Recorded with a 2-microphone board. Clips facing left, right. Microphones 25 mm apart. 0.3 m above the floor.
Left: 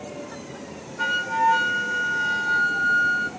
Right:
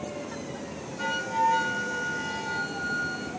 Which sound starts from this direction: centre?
A flute, at 1.0 s.